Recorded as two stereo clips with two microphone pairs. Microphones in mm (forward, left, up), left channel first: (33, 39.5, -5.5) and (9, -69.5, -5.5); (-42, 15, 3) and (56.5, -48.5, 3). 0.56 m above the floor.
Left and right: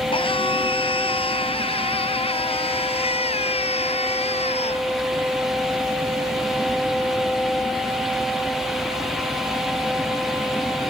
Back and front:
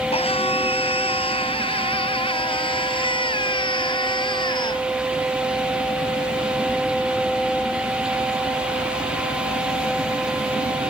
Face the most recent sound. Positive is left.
turn(degrees=100)